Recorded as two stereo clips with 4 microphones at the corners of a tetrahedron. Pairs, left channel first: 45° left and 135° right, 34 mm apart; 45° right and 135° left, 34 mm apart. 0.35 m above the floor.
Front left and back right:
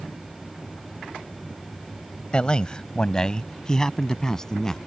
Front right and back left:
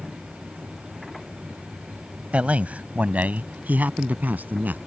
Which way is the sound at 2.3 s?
100° left.